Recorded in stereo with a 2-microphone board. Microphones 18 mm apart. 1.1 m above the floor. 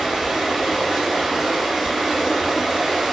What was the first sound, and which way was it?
Running water, 35° right (ahead or behind).